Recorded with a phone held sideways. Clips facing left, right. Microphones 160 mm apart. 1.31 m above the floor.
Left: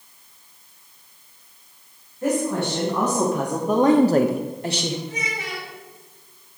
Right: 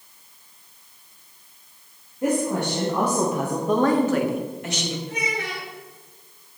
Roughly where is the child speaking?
Right.